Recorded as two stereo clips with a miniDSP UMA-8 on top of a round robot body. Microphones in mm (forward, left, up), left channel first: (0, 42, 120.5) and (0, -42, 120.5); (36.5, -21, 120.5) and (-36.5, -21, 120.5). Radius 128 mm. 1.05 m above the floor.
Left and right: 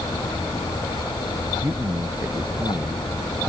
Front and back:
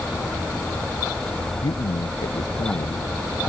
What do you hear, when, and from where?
1.6 s a man speaking: 25° right